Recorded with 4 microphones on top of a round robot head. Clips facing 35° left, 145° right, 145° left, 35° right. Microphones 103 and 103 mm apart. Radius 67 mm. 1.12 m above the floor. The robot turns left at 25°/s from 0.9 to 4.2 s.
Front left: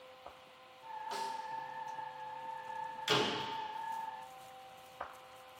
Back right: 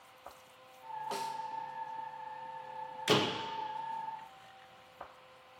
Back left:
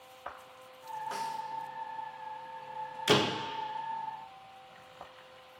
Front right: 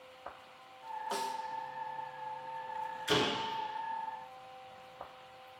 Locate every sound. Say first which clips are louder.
1.1 s a snare drum: back right 1 dB, front right 1 dB; 105° right, 0.7 m; by 1.4 s 110° right, 0.7 m
3.1 s a door slam: back right 4 dB, back left 5 dB; 170° left, 0.9 m; by 3.4 s 160° left, 0.9 m